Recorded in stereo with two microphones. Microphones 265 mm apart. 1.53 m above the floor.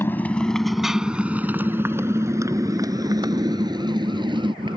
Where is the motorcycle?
10° left (ahead or behind); by 4.8 s 20° right (ahead or behind).